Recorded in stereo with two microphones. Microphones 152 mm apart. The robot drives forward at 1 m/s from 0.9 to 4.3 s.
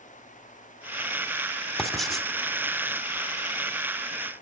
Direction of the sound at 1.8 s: Centre (ahead or behind).